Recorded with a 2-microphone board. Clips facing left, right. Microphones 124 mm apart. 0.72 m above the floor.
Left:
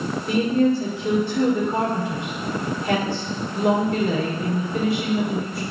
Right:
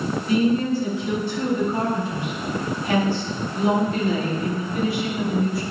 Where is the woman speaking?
65° left (ahead or behind), 2.5 m.